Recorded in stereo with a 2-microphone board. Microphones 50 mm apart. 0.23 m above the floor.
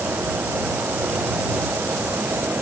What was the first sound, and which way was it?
Only background noise.